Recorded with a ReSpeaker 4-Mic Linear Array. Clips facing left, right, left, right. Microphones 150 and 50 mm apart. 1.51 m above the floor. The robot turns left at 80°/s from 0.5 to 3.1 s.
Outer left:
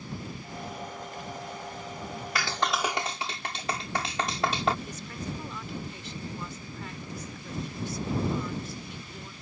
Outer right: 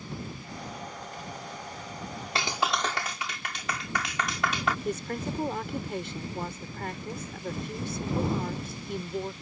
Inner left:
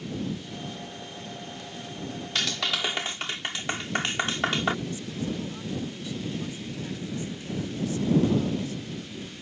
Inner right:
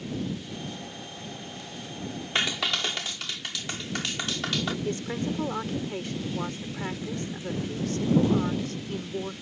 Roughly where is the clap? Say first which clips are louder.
Even, inner right 1 dB; behind right.